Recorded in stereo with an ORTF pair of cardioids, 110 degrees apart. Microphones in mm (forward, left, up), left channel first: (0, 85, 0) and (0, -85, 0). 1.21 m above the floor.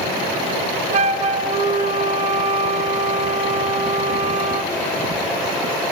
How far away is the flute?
About 1.1 m.